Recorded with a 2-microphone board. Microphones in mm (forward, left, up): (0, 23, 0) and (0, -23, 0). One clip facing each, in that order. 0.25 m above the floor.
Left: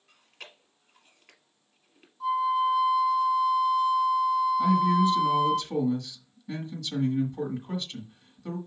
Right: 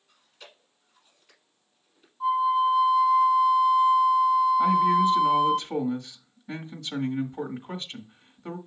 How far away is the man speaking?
About 1.8 m.